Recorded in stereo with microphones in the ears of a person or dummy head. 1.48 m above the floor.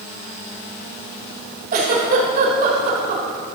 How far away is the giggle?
About 2.0 m.